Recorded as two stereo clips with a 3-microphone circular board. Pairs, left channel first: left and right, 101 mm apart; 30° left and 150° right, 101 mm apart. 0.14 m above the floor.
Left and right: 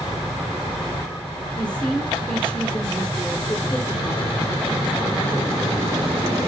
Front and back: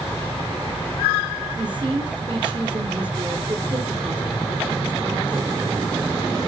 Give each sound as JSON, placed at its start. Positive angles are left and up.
{"t": 1.6, "sound": "a woman speaking", "azimuth_deg": 170, "distance_m": 4.0}